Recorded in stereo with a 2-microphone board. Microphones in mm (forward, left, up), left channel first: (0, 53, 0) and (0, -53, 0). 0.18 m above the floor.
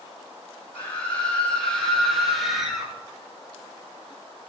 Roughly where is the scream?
Centre.